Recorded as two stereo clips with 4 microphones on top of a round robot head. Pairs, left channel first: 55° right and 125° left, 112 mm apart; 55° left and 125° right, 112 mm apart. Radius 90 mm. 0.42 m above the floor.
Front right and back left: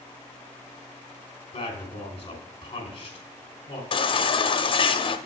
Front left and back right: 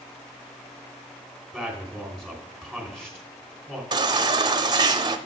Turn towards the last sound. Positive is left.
turn(degrees=-80)